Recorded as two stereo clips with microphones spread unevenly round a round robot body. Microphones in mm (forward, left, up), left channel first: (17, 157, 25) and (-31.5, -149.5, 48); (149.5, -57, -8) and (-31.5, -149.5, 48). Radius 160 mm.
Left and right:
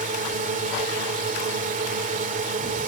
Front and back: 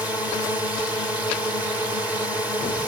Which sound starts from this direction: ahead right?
A drone, at 0.0 s.